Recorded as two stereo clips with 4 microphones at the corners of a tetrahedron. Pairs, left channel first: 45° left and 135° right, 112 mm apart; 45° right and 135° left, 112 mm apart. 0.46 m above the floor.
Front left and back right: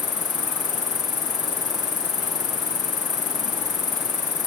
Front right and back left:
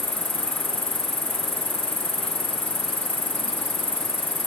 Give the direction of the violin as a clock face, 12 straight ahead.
I don't hear a violin.